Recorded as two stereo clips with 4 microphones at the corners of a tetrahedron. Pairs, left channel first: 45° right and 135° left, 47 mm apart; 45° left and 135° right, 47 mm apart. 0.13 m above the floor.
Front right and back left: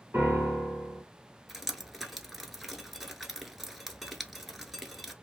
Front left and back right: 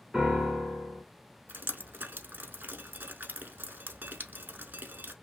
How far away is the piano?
About 1.6 m.